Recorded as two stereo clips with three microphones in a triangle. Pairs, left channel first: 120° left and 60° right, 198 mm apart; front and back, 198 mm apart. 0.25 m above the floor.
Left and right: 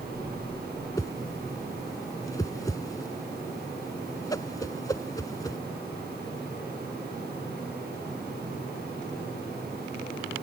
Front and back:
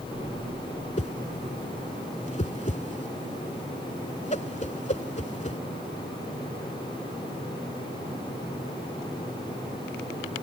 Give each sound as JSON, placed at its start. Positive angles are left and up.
{"t": 1.0, "sound": "a whoosh", "azimuth_deg": 50}